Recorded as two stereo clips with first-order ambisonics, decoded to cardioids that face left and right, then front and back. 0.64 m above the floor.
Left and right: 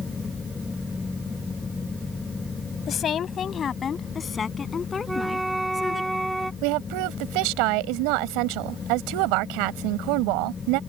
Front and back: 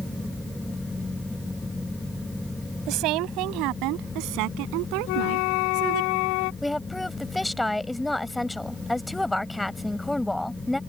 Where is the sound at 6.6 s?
85° right.